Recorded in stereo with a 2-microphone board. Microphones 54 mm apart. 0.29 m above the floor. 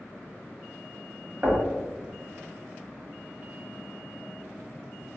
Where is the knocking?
35° right (ahead or behind), 1.1 m.